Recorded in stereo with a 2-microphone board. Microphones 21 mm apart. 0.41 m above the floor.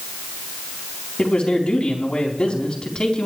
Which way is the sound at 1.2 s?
45° left (ahead or behind).